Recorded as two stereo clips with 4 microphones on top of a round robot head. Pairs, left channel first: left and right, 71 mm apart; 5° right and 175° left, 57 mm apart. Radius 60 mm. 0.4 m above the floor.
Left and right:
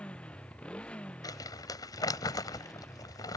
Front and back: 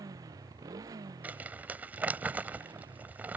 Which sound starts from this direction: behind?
A motorcycle, at 0.0 s.